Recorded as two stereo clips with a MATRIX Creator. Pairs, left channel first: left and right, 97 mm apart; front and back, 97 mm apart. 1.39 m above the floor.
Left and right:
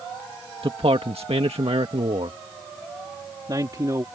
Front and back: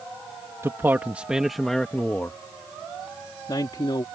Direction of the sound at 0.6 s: 115° right.